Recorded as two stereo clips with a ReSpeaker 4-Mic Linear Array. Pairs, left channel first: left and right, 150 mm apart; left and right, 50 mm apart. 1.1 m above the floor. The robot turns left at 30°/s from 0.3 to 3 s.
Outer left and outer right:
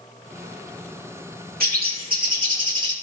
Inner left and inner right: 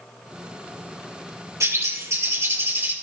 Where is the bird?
90° right, 2 m; by 2.9 s 130° right, 2 m.